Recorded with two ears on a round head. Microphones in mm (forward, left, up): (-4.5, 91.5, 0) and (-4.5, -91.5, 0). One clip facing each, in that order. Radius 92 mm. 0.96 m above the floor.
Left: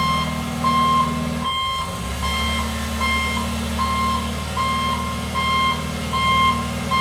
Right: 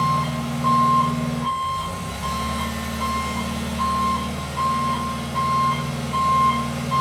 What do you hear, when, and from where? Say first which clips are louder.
0.0 s an engine running: even; 55° left (ahead or behind), 1.8 m